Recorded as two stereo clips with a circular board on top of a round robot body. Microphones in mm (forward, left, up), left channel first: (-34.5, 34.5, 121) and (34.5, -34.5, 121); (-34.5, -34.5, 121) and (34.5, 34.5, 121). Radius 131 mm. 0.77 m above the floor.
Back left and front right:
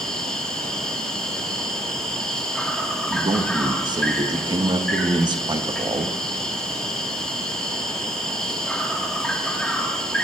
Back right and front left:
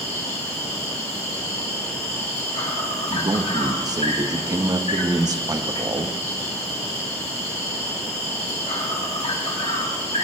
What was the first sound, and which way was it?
An insect, 145° right.